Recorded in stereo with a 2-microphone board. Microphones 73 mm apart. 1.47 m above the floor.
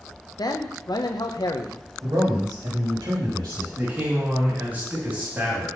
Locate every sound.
0.4 s a man speaking: 65° left (ahead or behind), 0.8 m
2.0 s a man speaking: 75° right (ahead or behind), 3.5 m
3.8 s a man speaking: 25° right (ahead or behind), 2.5 m